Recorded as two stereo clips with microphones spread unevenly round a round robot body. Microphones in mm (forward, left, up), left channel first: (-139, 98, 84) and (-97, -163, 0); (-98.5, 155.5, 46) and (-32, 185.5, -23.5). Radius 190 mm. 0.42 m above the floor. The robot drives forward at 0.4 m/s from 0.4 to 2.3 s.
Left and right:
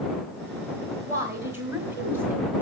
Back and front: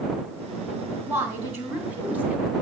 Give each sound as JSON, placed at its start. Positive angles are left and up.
{"t": 1.1, "sound": "a woman speaking", "azimuth_deg": -15, "distance_m": 1.3}